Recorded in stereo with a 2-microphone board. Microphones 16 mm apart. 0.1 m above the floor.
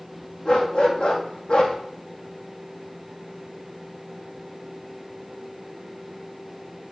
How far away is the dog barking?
About 2.5 m.